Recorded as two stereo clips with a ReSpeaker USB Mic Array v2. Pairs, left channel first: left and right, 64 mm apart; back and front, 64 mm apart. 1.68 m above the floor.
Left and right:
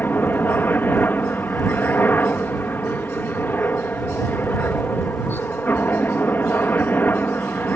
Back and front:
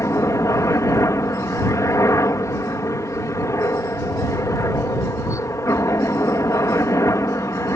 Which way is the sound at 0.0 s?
145° left.